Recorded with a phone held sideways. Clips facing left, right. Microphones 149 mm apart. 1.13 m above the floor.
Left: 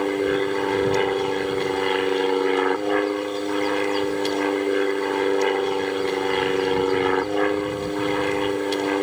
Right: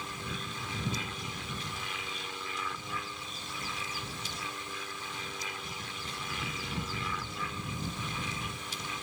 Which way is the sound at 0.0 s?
70° left (ahead or behind).